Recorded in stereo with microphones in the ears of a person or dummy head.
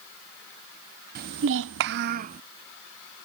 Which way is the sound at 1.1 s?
50° right (ahead or behind).